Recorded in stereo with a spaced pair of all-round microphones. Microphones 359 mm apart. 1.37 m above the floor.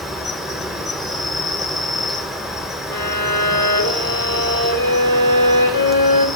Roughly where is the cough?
No cough in this recording.